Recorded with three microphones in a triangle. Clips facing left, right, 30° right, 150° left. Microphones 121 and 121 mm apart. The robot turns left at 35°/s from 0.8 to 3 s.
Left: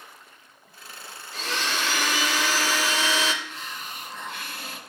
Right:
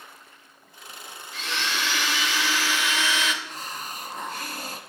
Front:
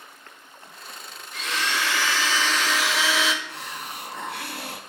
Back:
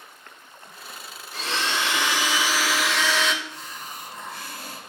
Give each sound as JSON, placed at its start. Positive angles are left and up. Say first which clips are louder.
{"t": 1.3, "sound": "a blender", "louder": "left 1 dB, back 1 dB", "azimuth_deg": 115, "distance_m": 0.6}
{"t": 3.4, "sound": "a hiss", "louder": "right 2 dB, front 2 dB", "azimuth_deg": -40, "distance_m": 0.6}